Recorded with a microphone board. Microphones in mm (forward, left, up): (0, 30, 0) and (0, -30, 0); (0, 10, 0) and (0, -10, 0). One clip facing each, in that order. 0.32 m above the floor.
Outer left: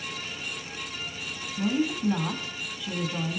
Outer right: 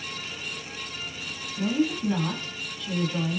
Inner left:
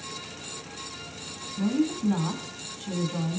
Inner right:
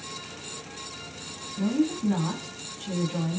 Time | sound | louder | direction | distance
1.6 | a woman speaking | outer right 1 dB, even | 10° left (ahead or behind) | 3 m